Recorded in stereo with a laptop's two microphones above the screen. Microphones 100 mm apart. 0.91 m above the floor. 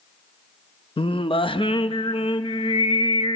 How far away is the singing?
About 0.5 m.